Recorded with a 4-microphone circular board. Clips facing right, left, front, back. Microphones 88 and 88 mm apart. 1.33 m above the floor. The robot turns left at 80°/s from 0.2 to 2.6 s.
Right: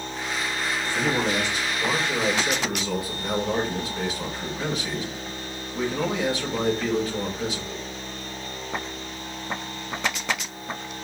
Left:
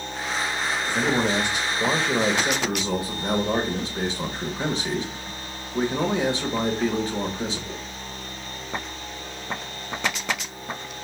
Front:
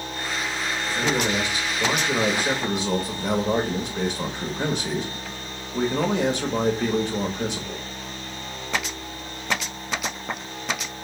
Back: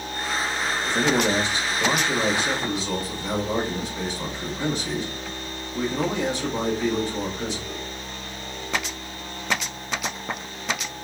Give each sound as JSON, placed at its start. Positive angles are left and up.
{"t": 0.8, "sound": "a man speaking", "azimuth_deg": 170, "distance_m": 1.1}